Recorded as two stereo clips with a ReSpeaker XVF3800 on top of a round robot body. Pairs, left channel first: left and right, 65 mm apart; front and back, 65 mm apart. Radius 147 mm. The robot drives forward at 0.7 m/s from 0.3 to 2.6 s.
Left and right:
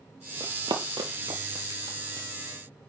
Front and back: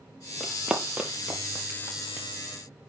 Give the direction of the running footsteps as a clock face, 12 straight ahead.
3 o'clock.